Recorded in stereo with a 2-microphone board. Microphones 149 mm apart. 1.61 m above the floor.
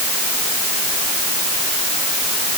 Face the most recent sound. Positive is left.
No sound to turn to.